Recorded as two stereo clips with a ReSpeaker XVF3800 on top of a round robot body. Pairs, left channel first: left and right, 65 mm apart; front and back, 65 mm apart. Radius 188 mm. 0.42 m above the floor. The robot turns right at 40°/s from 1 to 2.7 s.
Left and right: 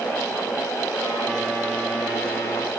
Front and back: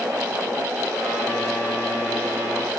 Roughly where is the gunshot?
I don't hear a gunshot.